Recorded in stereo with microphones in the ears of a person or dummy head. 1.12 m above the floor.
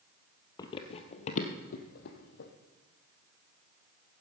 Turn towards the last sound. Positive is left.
turn(degrees=60)  # may be behind; listen again after turning